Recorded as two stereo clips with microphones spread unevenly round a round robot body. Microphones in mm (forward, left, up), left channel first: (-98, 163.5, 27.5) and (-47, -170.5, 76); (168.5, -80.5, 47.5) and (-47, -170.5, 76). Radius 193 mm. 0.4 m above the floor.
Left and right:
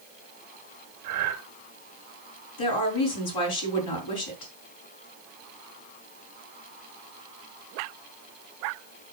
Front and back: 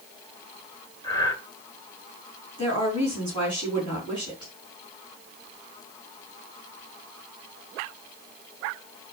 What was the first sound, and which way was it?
Breathing, 45° right.